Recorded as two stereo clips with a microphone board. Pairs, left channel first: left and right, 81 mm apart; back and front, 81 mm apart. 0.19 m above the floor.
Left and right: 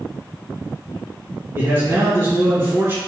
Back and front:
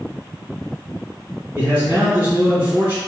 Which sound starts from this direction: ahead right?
A man speaking, at 1.6 s.